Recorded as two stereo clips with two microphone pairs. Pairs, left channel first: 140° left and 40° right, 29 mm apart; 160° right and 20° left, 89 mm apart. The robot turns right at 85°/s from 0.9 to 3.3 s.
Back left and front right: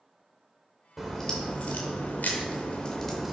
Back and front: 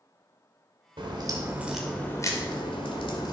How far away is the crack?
About 2.5 m.